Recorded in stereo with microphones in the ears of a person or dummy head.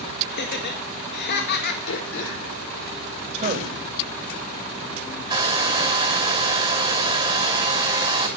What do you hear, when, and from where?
0.3 s laughter: 60° left (ahead or behind), 2.0 m
1.9 s throat clearing: 70° left (ahead or behind), 5.5 m
3.3 s a man speaking: 35° right (ahead or behind), 3 m
5.3 s a hair dryer: 25° right (ahead or behind), 6 m